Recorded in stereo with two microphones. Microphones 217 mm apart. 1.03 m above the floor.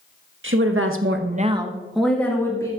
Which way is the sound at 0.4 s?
65° right (ahead or behind).